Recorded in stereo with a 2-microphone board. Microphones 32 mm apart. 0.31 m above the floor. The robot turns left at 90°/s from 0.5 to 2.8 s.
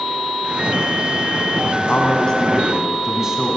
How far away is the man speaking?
About 2.5 m.